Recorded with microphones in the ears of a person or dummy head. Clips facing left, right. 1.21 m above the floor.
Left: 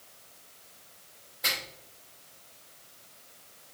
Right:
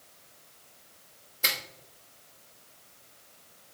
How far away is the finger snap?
About 1.3 m.